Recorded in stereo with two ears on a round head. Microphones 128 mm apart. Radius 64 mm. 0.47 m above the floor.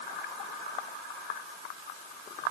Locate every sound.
Only background noise.